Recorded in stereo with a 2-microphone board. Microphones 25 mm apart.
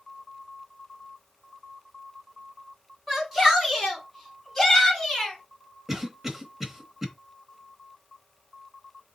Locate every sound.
3.1 s a shout: 15° right (ahead or behind), 3 m; by 5.4 s 10° left (ahead or behind), 2.5 m
5.9 s a cough: 20° right (ahead or behind), 1.0 m